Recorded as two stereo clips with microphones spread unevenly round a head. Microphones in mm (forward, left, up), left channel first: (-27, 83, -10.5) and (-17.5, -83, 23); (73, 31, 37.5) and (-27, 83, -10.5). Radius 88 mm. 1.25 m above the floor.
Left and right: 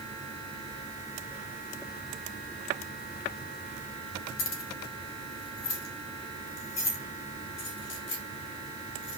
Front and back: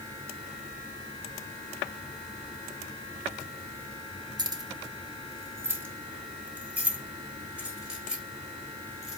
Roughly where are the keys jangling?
Left.